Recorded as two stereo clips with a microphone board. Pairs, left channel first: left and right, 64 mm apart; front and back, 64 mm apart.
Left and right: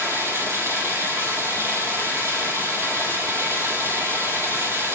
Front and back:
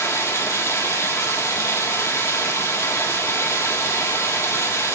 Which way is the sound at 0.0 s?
45° right.